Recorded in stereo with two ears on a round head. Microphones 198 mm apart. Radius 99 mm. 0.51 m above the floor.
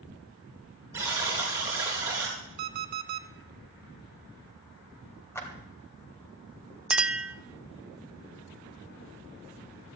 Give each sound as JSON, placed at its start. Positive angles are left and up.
{"t": 0.9, "sound": "a buzzer", "side_deg": -15, "distance_m": 5.5}
{"t": 2.6, "sound": "an alarm clock", "side_deg": -40, "distance_m": 0.9}
{"t": 5.3, "sound": "a clap", "side_deg": 10, "distance_m": 2.5}
{"t": 6.9, "sound": "a clink", "side_deg": -5, "distance_m": 0.5}